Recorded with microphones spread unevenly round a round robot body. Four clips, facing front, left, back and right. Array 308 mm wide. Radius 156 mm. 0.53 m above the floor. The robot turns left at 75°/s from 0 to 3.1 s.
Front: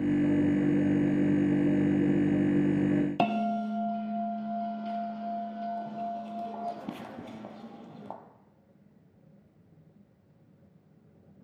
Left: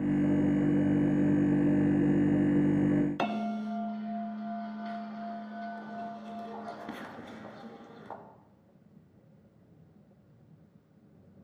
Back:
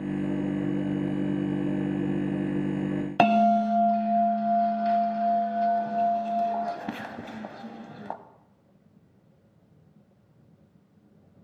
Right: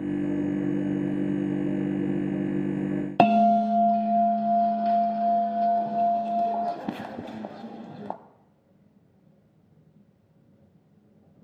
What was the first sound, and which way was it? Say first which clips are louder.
A bell: right 14 dB, back 8 dB; 90° right.